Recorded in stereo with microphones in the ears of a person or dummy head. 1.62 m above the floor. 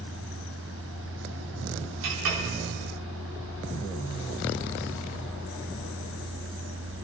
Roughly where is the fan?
Right.